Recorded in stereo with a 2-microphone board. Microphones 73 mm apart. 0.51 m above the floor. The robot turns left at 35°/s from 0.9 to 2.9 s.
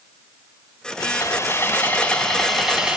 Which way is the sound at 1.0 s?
55° left.